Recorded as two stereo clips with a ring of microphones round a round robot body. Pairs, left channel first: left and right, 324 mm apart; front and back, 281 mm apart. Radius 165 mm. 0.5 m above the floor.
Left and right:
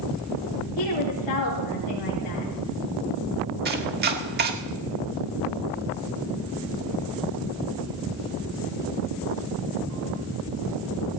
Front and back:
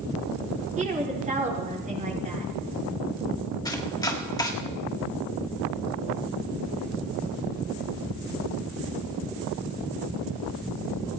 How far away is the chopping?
About 1.4 m.